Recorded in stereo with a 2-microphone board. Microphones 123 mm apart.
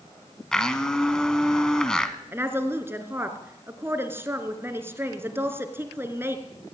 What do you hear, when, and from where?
0.5 s a blender: 5° left (ahead or behind), 1.5 m
2.3 s a woman speaking: 20° right (ahead or behind), 2.5 m